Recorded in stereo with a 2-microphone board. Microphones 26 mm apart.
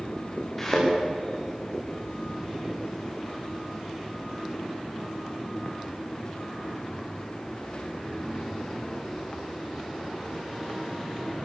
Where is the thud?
10° left (ahead or behind), 8.5 m.